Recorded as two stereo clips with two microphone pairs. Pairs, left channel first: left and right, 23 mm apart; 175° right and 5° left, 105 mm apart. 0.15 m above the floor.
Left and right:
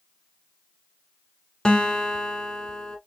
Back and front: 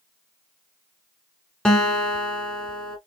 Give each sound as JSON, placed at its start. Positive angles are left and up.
{"t": 1.6, "sound": "a guitar", "azimuth_deg": 110, "distance_m": 1.1}